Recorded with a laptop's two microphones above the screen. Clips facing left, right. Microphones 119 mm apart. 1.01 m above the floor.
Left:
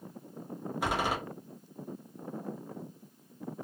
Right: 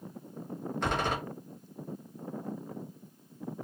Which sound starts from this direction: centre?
A door slam, at 0.8 s.